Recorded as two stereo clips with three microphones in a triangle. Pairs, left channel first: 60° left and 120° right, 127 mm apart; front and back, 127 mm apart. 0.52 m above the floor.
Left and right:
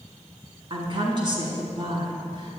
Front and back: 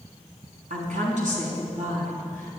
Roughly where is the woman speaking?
Behind.